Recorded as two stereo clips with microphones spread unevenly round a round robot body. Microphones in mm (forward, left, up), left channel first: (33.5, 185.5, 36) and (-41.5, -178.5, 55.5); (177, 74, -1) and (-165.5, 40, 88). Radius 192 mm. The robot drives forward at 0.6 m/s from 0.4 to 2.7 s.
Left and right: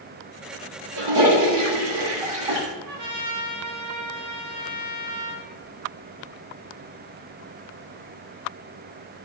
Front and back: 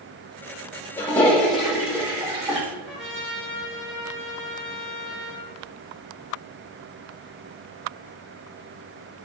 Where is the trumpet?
80° right, 2 m.